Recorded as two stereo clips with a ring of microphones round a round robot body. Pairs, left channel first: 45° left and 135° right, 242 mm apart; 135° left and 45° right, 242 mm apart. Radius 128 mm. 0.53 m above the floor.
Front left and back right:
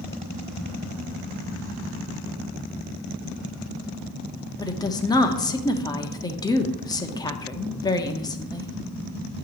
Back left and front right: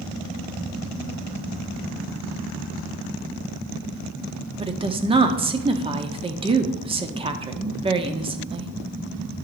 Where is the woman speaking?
10° right, 0.8 m.